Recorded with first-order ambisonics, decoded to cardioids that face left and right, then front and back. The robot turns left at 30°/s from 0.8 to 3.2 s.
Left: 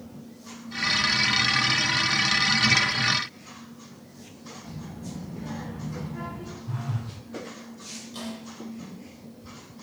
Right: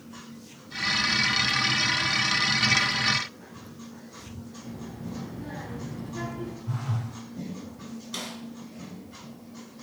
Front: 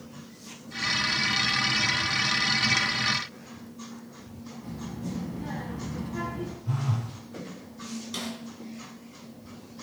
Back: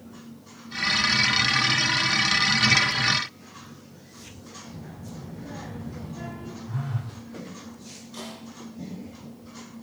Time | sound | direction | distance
4.6 | a child speaking | 5° left | 4.5 m
6.7 | a phone buzzing | 5° right | 4 m
8.1 | a snare drum | 50° right | 4 m